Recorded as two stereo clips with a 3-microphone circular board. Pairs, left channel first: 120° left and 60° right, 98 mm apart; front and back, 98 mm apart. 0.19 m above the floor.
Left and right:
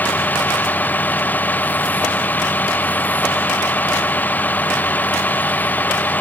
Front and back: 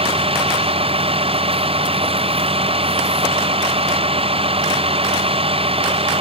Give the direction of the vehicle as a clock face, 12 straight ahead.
6 o'clock.